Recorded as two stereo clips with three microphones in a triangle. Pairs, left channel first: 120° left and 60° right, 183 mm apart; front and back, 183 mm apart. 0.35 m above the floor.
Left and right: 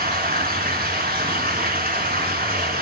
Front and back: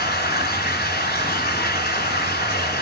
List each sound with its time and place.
0.0 s running water: 25° right, 1.9 m